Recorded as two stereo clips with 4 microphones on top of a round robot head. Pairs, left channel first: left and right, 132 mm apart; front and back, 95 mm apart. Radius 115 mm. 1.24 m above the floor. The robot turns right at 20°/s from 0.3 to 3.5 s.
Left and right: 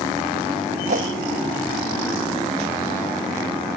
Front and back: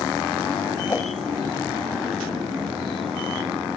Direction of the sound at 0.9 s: 70° right.